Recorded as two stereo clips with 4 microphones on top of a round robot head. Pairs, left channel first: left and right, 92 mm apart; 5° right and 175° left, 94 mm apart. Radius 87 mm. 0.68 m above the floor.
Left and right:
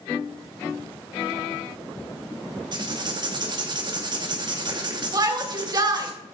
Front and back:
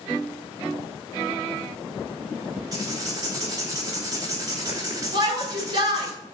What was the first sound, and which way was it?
Writing, 125° right.